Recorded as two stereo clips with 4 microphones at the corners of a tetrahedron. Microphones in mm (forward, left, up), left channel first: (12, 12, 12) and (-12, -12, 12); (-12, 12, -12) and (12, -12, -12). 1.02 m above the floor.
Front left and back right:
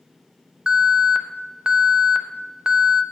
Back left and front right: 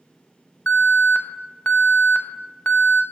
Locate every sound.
0.7 s an alarm: 160° left, 0.6 m